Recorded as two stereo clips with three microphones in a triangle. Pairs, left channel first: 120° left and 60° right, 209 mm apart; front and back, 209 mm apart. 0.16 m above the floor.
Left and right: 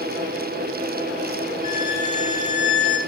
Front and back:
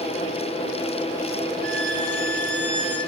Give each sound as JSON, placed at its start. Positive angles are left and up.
{"t": 1.6, "sound": "a violin", "azimuth_deg": -5, "distance_m": 5.0}